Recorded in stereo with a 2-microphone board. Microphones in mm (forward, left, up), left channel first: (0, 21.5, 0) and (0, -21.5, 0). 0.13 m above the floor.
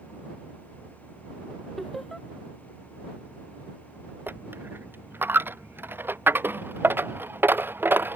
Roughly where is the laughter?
Centre.